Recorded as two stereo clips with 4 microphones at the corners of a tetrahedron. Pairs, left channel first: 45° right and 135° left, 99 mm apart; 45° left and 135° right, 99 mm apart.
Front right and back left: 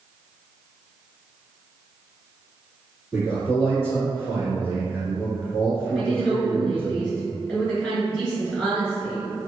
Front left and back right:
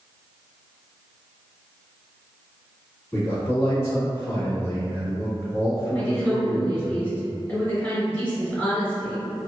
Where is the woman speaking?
15° left, 1.3 m.